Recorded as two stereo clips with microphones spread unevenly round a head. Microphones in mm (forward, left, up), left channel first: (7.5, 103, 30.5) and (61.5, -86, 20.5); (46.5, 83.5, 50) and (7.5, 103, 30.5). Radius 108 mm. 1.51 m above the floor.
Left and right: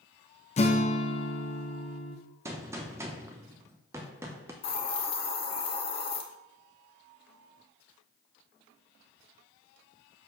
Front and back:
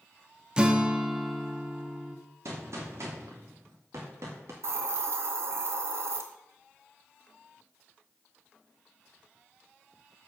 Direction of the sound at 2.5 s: 150° right.